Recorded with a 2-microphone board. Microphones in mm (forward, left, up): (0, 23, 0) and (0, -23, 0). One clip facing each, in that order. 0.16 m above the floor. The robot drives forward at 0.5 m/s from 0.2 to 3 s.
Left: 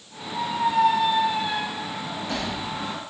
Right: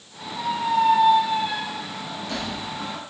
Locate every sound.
0.3 s a squeak: 45° left (ahead or behind), 5 m; by 3.0 s 35° left (ahead or behind), 6 m